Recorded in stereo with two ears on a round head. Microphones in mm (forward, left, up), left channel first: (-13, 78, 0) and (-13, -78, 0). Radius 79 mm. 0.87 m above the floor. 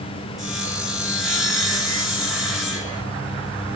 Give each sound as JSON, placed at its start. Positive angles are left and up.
{"t": 0.4, "sound": "sawing", "side_deg": 0, "distance_m": 6.5}